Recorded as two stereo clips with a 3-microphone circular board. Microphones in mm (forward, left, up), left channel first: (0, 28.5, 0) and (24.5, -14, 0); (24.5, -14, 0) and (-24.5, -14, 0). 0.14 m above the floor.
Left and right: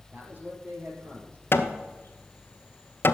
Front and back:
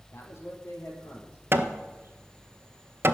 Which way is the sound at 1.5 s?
150° left.